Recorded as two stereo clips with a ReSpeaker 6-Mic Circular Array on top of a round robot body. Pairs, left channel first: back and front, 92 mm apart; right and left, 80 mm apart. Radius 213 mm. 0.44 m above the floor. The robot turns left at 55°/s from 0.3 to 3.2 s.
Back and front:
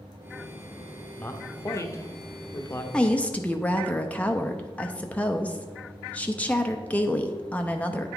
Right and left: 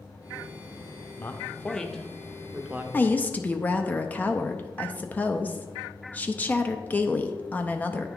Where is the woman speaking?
115° right, 0.7 m; by 8.1 s 130° right, 0.7 m.